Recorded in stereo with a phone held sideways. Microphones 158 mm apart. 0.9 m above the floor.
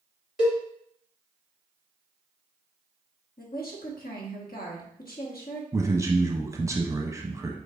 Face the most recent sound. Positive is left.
turn(degrees=-20)  # may be behind; listen again after turning